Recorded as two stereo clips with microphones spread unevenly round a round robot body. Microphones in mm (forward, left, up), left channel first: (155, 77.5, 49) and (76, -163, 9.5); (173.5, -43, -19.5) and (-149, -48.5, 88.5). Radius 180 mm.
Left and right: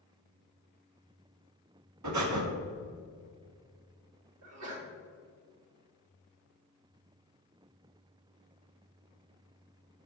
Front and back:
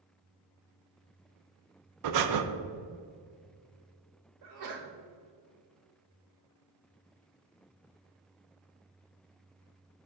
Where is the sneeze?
145° right, 2 m.